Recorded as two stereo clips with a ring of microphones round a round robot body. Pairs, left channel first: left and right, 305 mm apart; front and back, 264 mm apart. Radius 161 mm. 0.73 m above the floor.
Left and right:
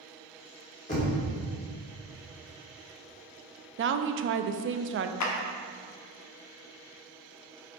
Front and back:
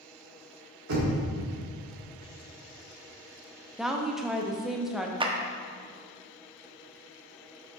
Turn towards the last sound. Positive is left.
turn(degrees=110)